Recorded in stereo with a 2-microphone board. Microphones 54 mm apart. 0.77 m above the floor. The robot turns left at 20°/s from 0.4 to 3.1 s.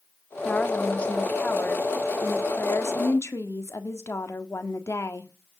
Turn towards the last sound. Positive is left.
turn(degrees=110)